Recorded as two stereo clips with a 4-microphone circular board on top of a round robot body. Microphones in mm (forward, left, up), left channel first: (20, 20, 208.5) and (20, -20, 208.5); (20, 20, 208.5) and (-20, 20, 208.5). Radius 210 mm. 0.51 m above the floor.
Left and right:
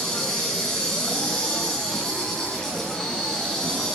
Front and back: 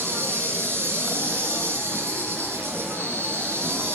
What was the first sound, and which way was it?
An insect, 165° left.